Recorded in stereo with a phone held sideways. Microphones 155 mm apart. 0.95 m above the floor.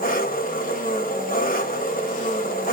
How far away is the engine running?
About 0.9 m.